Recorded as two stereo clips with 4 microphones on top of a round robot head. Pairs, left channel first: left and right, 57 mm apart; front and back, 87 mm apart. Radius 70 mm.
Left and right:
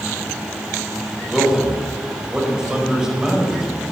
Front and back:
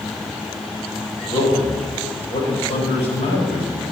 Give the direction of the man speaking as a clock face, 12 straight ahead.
12 o'clock.